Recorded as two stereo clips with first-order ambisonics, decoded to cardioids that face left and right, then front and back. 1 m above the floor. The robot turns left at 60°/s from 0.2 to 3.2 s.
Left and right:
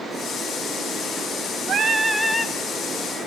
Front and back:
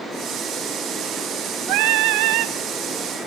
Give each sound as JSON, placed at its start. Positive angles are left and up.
{"t": 1.7, "sound": "singing", "azimuth_deg": -150, "distance_m": 0.9}